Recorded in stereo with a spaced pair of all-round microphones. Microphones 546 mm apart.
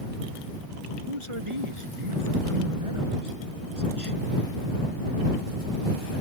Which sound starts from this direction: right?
A man speaking, at 1.1 s.